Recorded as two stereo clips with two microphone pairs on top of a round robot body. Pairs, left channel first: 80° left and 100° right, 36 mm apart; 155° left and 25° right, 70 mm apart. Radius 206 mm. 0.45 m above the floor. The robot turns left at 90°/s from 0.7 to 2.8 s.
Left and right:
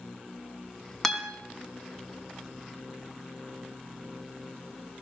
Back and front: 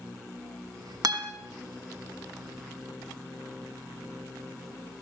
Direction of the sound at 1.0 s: 5° right.